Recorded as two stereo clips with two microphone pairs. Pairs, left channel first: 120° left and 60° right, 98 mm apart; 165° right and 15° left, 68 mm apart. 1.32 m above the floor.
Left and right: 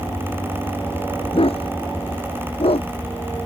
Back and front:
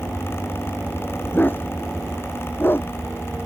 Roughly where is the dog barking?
Behind left.